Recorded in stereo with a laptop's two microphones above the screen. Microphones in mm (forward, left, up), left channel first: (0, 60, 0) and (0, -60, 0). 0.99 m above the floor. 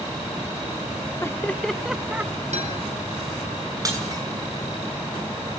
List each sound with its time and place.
1.2 s laughter: 25° left (ahead or behind), 0.6 m; by 2.4 s 25° right (ahead or behind), 0.8 m
2.5 s a guitar: 75° right (ahead or behind), 4 m
3.9 s breaking glass: 30° right (ahead or behind), 6.5 m